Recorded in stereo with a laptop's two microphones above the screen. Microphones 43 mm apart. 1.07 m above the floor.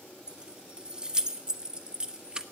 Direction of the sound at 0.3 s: 20° right (ahead or behind).